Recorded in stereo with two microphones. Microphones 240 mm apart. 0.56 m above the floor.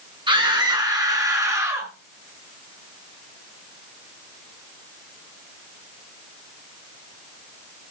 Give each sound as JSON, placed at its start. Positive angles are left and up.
{"t": 0.3, "sound": "a scream", "side_deg": -20, "distance_m": 6.5}